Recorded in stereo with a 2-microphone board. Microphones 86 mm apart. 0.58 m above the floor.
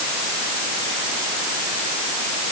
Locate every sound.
Only background noise.